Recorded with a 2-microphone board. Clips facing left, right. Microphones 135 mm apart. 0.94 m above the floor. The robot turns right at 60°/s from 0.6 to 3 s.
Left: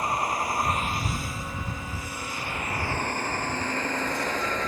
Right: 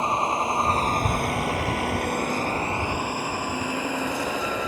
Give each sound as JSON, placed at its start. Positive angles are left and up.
{"t": 0.0, "sound": "a vehicle", "side_deg": -25}